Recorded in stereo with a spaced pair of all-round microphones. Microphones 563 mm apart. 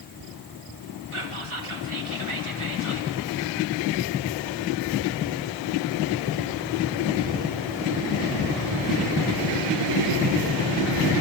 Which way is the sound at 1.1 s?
60° right (ahead or behind).